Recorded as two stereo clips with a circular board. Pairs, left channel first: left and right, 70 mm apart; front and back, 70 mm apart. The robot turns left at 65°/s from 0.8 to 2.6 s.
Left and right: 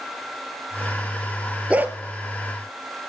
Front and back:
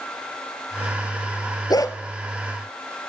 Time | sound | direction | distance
1.7 | a dog barking | 20° right | 1.3 m